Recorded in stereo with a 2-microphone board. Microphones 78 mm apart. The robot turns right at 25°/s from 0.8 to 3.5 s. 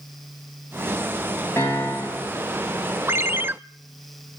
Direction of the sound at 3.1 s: 30° right (ahead or behind).